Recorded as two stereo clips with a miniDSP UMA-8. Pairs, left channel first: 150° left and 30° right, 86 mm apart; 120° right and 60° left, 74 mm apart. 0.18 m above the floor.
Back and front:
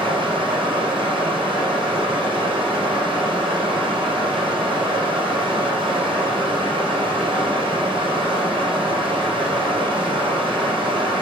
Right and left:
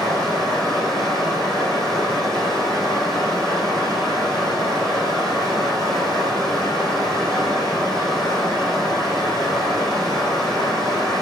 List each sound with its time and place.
0.0 s running water: 35° right, 5 m